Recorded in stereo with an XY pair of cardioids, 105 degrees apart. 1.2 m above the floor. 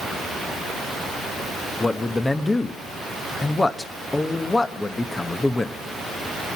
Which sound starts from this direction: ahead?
A man speaking, at 1.8 s.